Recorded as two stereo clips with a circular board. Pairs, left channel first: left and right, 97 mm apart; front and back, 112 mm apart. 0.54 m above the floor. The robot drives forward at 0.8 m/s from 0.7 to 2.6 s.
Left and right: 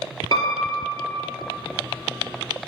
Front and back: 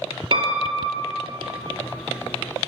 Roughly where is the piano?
Behind left.